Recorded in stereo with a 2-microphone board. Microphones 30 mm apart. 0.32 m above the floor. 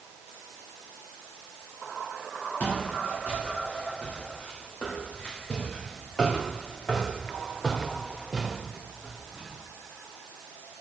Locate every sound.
2.6 s footsteps: 50° left (ahead or behind), 6 m; by 9.6 s 20° right (ahead or behind), 3 m